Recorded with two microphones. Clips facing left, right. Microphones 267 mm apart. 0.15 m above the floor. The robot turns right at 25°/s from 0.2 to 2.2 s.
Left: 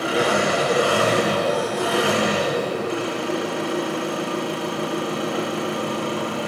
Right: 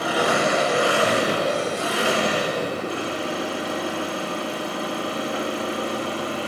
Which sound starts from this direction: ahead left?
An engine running, at 0.0 s.